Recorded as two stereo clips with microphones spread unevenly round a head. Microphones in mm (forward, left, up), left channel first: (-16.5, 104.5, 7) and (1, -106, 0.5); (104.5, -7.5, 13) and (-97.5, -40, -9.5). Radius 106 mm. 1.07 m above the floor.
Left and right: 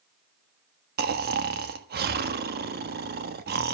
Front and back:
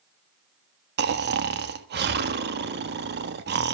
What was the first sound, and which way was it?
Snoring, 130° right.